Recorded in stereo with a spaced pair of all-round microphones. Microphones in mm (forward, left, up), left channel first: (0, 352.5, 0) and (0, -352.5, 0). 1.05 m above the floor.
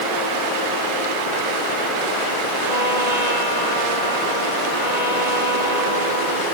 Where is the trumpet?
70° left (ahead or behind).